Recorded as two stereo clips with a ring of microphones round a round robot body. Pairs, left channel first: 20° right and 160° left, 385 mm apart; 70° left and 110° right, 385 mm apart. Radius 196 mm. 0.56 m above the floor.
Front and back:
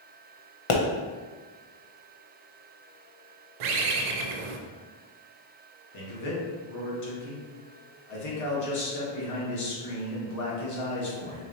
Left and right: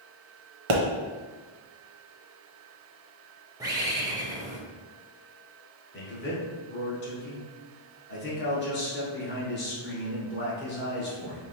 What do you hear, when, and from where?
0.7 s a pop: 65° right, 0.7 m
3.6 s a bird: 165° left, 0.6 m
5.9 s a man speaking: 10° left, 1.5 m